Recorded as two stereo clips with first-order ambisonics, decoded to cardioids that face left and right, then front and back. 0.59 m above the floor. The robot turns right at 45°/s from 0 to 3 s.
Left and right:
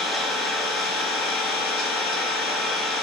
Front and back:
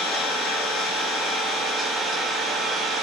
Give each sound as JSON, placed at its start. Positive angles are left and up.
{"t": 0.0, "sound": "an engine running", "azimuth_deg": 0, "distance_m": 1.1}